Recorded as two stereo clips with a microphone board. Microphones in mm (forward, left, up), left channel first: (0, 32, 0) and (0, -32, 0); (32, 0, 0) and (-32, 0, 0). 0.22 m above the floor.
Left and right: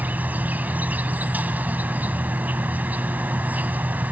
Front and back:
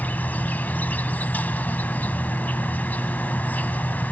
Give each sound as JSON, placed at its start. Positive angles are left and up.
{"t": 0.0, "sound": "an insect", "azimuth_deg": -45, "distance_m": 0.8}